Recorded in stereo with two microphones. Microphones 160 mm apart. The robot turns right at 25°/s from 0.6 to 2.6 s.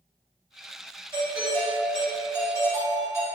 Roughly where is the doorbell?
Ahead right.